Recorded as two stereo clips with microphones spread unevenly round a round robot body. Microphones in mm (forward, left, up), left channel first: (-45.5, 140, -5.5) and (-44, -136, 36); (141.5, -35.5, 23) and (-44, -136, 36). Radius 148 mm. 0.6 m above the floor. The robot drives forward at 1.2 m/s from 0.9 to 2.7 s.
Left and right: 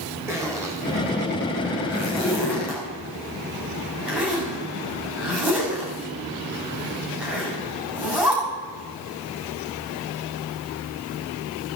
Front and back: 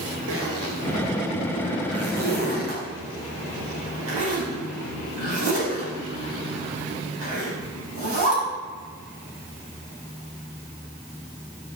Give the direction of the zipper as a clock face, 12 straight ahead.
6 o'clock.